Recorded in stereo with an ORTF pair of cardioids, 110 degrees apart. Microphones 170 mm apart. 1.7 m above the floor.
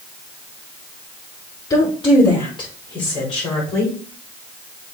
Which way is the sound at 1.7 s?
25° left.